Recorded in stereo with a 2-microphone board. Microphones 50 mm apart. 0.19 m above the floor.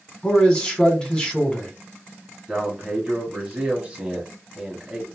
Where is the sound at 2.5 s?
20° right (ahead or behind), 1.5 m.